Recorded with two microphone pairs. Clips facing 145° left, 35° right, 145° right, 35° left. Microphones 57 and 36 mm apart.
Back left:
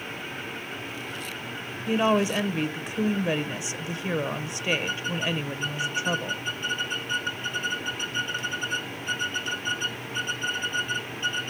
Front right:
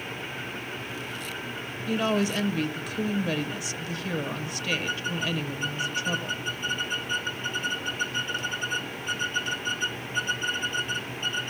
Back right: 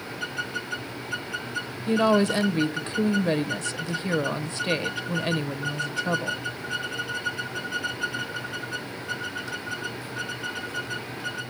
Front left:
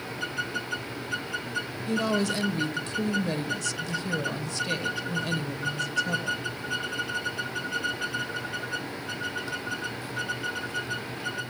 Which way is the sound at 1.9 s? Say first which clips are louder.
Back left 3 dB, back right 6 dB; 170° right.